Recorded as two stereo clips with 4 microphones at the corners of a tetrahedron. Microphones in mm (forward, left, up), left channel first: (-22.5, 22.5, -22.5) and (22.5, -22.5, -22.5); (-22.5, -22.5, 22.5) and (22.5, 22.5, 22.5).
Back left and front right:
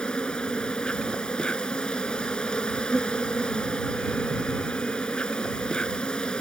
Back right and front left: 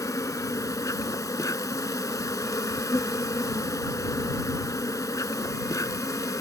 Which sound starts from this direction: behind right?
An insect, at 0.0 s.